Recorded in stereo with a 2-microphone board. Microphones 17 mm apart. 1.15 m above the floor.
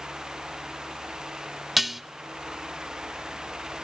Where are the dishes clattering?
10° right (ahead or behind), 0.6 m.